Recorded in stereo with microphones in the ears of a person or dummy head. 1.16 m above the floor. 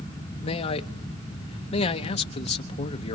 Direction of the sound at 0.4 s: 35° left (ahead or behind).